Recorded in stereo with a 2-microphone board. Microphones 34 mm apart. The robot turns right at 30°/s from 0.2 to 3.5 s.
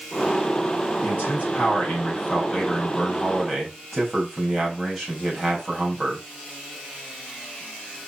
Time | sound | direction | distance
1.0 | a man speaking | 105° left | 5.5 m